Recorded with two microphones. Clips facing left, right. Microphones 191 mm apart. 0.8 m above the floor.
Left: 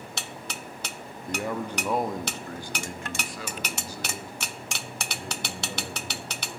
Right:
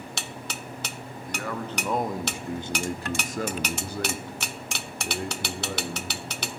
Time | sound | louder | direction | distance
1.3 | a man speaking | left 3 dB | 25° left (ahead or behind) | 1.0 m